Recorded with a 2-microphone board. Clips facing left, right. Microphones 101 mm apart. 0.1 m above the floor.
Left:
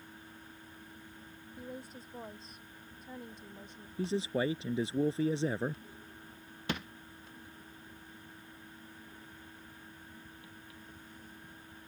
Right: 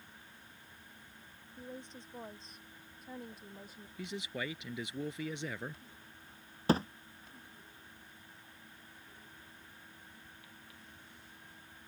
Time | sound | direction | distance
1.6 | a woman speaking | 10° left (ahead or behind) | ?
4.0 | a man speaking | 35° left (ahead or behind) | ?
6.7 | a thud | 35° right (ahead or behind) | ?